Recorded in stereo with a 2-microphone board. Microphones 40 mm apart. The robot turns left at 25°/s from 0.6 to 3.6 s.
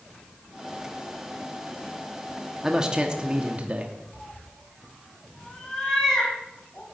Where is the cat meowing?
20° left (ahead or behind), 5.5 m.